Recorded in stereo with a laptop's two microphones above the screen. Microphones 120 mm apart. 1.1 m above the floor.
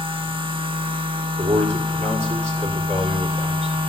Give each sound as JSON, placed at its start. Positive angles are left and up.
{"t": 0.0, "sound": "a machine running", "side_deg": -45, "distance_m": 1.1}
{"t": 1.4, "sound": "a man speaking", "side_deg": -65, "distance_m": 3.0}